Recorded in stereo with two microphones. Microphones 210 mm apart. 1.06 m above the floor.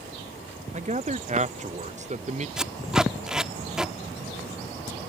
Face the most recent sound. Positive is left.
turn(degrees=-5)  # may be behind; listen again after turning